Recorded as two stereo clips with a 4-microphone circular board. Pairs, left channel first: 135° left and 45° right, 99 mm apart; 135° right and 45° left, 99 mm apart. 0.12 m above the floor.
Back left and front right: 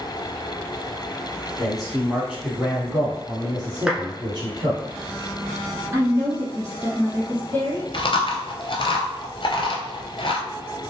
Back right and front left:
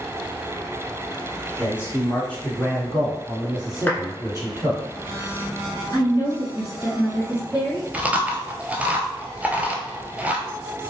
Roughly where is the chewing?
Behind left.